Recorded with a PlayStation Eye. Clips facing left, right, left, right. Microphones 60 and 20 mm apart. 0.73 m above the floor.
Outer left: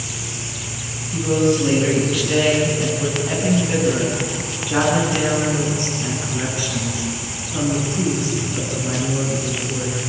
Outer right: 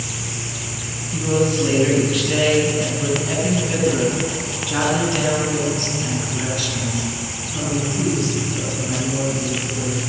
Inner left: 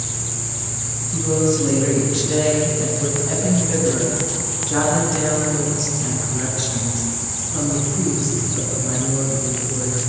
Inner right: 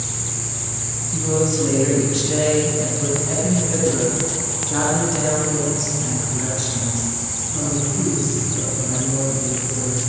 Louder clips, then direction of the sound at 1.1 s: Outer left 2 dB, inner left 1 dB; 5° right (ahead or behind).